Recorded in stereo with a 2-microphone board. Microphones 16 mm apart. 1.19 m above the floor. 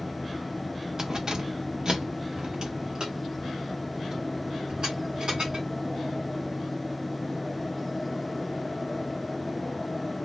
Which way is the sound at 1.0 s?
40° right (ahead or behind).